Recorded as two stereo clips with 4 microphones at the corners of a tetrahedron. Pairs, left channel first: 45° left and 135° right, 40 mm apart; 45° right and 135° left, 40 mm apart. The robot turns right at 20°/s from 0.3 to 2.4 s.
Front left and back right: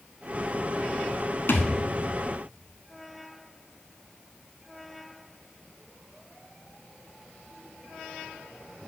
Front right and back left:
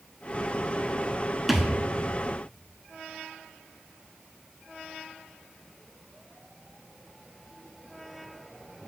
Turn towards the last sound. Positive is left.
turn(degrees=70)